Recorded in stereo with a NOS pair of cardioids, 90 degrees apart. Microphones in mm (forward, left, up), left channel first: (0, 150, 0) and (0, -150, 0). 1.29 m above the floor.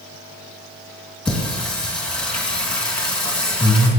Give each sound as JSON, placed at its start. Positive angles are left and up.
{"t": 1.2, "sound": "singing", "azimuth_deg": 5, "distance_m": 2.5}